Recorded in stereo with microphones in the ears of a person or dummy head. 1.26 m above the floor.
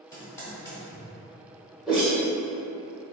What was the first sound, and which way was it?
Typing on a keyboard, 15° left (ahead or behind).